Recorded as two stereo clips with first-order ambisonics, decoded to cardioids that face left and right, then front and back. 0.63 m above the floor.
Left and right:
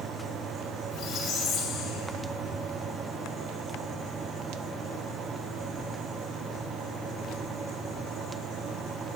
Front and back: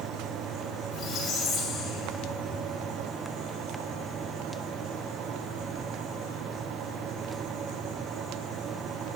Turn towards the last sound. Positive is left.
turn(degrees=50)